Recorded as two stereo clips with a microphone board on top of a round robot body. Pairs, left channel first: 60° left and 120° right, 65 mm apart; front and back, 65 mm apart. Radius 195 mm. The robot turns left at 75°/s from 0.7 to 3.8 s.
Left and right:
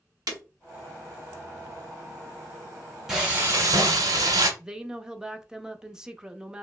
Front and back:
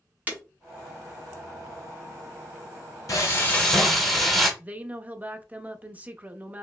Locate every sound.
0.3 s breaking glass: 115° right, 1.1 m
3.1 s frying: 35° right, 0.7 m; by 4.5 s 90° right, 0.7 m
4.6 s a woman speaking: 175° left, 0.8 m